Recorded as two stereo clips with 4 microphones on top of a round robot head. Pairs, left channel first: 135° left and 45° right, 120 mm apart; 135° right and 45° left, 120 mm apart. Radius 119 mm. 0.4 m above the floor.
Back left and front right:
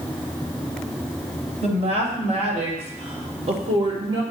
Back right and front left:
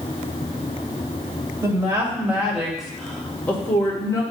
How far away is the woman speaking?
About 2.5 m.